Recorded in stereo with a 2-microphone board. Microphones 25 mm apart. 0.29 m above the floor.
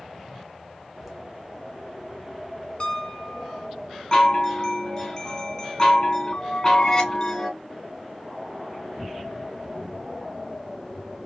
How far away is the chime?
About 1.6 m.